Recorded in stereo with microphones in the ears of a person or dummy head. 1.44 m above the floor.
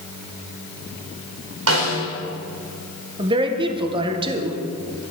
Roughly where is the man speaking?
Right.